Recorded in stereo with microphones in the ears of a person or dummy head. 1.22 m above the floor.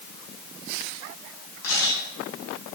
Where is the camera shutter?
85° left, 9.5 m.